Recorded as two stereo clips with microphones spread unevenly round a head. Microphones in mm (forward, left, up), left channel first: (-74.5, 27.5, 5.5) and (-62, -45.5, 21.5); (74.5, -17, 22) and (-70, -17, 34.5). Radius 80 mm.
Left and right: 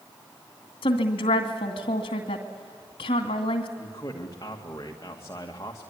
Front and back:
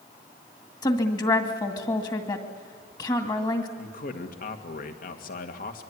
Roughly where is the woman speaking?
Ahead left.